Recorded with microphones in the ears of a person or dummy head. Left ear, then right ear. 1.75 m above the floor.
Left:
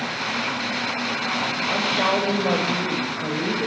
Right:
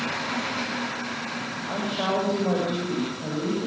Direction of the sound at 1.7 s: 85° left.